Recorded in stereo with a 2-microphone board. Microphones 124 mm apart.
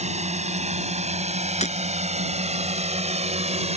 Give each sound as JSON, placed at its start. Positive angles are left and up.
{"t": 0.0, "sound": "a drone", "side_deg": -65}
{"t": 1.6, "sound": "breaking glass", "side_deg": 65}